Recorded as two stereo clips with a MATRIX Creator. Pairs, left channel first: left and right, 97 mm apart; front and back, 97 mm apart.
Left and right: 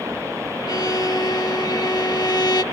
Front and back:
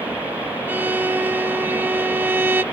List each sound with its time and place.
0.7 s a violin: 115° left, 0.5 m